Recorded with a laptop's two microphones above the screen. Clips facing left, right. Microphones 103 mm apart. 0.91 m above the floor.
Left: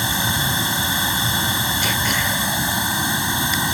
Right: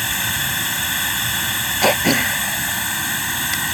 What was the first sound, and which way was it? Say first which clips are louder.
Running water: left 3 dB; 20° left (ahead or behind).